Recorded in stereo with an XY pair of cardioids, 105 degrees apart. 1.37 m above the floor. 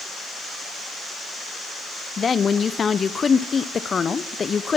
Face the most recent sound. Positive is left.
turn(degrees=35)